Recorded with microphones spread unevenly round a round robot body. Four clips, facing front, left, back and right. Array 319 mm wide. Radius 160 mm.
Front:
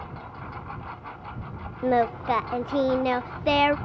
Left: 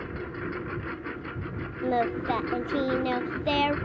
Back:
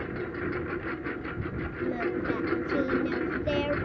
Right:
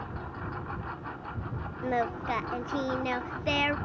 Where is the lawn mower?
155° left.